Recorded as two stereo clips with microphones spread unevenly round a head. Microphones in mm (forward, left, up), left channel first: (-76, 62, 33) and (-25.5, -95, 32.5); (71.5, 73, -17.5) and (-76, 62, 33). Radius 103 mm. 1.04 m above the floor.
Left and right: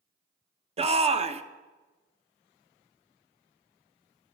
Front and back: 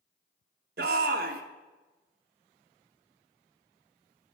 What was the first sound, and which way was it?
A shout, 125° right.